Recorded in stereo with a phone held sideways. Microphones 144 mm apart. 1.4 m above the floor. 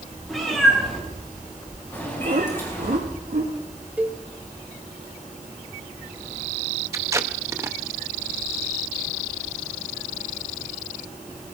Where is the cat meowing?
Centre (ahead or behind), 6 m; by 3.0 s 20° left (ahead or behind), 5.5 m.